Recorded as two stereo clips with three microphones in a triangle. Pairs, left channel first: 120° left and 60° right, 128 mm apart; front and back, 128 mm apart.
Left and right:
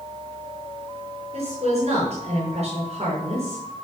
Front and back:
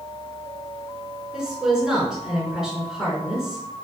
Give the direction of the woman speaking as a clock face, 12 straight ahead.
3 o'clock.